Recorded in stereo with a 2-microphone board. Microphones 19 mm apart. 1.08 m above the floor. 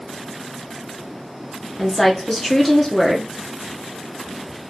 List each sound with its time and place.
1.8 s a woman speaking: 15° left (ahead or behind), 0.7 m